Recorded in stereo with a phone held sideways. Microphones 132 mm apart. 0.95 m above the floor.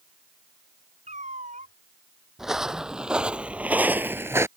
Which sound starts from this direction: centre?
Footsteps, at 2.4 s.